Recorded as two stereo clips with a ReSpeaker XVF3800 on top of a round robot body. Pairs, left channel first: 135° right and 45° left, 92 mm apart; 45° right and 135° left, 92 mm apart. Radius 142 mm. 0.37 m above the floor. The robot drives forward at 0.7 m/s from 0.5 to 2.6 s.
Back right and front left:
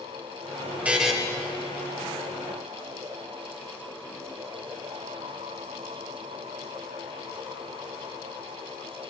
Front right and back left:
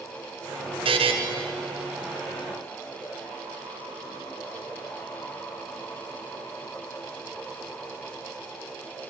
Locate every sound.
0.8 s a buzzer: 120° left, 0.7 m; by 1.1 s 135° left, 0.8 m